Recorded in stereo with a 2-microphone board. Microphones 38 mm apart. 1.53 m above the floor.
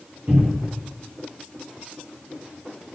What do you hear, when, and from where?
0.3 s a cupboard door: 45° right (ahead or behind), 1.6 m